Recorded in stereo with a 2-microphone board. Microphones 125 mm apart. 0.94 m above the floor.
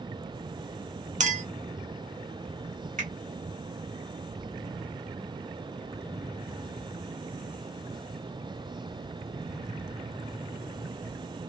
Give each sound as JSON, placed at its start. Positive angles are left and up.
{"t": 1.2, "sound": "a clink", "side_deg": -70, "distance_m": 0.5}
{"t": 3.0, "sound": "a finger snap", "side_deg": -75, "distance_m": 1.5}